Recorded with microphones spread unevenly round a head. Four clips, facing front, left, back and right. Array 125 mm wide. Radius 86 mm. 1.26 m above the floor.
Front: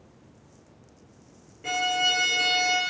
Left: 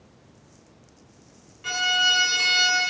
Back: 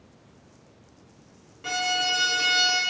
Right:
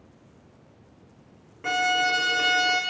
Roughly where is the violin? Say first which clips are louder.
Right 2 dB, front 1 dB; right.